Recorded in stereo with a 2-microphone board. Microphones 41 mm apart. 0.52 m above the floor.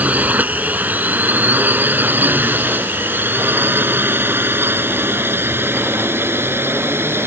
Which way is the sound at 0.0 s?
40° right (ahead or behind).